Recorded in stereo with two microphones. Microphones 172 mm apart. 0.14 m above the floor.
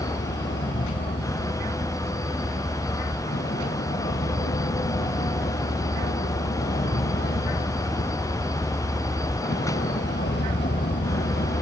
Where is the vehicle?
85° left; by 11.6 s 75° left (ahead or behind).